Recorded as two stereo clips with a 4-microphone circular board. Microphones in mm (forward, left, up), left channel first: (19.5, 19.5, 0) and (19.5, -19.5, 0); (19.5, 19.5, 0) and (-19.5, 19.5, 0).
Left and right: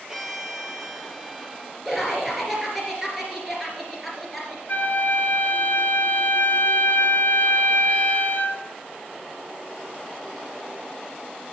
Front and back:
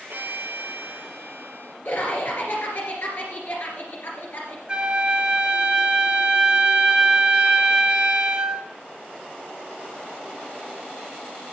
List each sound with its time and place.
0.1 s a violin: 170° right, 2 m
1.9 s laughter: 5° right, 2.5 m
4.7 s a flute: 120° left, 1.6 m